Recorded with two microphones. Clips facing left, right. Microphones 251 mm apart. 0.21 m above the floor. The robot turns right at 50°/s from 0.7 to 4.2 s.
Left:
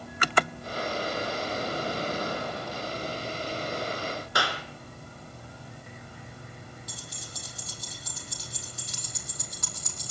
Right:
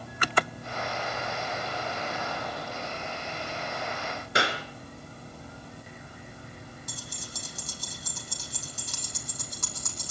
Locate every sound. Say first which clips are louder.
4.3 s a clap: right 5 dB; 25° right (ahead or behind), 2.5 m
6.9 s keys jangling: right 2 dB; 50° right (ahead or behind), 7.5 m